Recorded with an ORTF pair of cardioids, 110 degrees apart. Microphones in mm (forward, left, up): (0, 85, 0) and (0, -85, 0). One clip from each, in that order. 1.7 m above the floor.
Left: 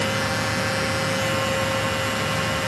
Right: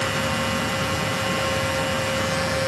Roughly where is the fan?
Ahead.